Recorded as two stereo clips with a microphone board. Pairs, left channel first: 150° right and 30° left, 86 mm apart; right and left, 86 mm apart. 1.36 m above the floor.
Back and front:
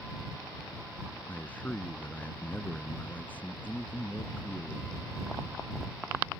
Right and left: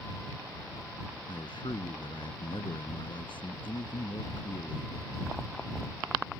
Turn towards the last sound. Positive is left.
turn(degrees=-80)